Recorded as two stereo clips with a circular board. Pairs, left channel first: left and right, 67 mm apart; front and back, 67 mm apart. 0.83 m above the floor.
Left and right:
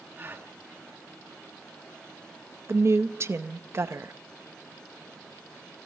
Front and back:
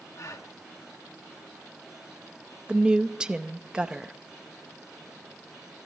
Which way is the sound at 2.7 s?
110° right.